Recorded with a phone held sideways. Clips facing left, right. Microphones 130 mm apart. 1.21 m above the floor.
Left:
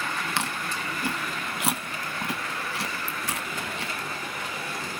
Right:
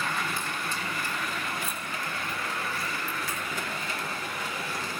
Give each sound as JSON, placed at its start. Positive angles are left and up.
{"t": 0.4, "sound": "chewing", "side_deg": 75, "distance_m": 1.1}